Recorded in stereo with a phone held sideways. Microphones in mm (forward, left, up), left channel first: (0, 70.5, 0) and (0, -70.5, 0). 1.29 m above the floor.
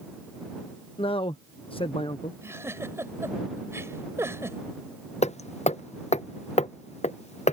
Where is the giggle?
20° right (ahead or behind).